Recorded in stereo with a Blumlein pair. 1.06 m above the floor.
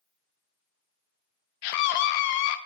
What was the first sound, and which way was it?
A scream, 45° left.